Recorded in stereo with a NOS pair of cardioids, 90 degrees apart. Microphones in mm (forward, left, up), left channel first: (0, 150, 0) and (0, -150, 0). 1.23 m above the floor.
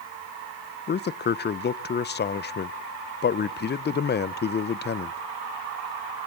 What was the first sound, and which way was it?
A man speaking, 35° left.